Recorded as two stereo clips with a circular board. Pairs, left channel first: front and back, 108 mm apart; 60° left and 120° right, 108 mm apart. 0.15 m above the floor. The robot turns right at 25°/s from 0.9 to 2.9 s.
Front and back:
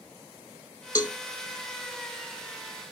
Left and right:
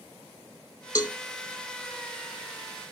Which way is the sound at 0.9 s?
30° left.